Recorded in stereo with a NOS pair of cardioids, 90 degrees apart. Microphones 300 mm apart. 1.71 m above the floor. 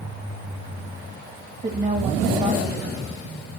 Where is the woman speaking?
35° right, 2.5 m.